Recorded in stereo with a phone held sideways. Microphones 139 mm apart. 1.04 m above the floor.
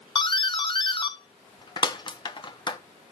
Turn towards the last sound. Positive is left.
turn(degrees=35)  # may be behind; listen again after turning